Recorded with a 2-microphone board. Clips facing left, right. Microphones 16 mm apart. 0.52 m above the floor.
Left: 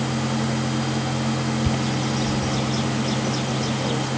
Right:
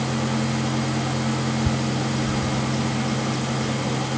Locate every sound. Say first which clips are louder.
1.6 s a bird: left 1 dB; 30° left (ahead or behind)